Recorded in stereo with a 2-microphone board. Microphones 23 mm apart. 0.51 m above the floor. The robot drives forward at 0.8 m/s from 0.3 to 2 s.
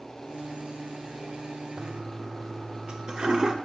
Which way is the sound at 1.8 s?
40° right (ahead or behind).